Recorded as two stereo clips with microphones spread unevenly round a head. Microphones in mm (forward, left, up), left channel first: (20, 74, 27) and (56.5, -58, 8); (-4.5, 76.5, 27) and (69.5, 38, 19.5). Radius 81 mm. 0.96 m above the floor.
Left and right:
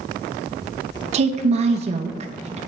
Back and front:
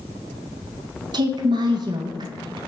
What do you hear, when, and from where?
1.1 s a woman speaking: 50° right, 0.6 m